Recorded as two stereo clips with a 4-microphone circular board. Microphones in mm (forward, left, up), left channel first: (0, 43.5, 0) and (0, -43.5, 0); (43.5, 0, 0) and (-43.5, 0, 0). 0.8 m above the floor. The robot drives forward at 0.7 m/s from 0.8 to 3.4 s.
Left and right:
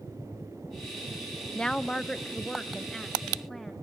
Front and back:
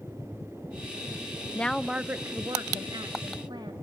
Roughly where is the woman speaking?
Ahead left.